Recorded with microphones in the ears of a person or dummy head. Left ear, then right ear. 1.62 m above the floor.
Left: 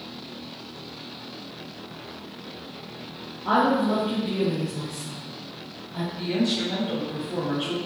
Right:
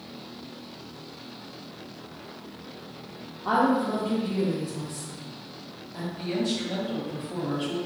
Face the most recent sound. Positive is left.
turn(degrees=5)  # may be behind; listen again after turning